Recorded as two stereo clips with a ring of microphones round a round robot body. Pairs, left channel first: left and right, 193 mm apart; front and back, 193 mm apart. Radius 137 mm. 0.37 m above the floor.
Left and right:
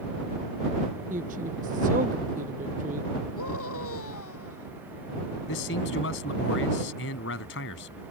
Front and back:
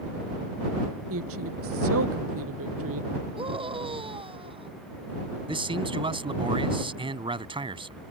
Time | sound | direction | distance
1.1 | a woman speaking | 155° right | ?
3.4 | a scream | 120° left | ?
5.5 | a man speaking | 120° left | ?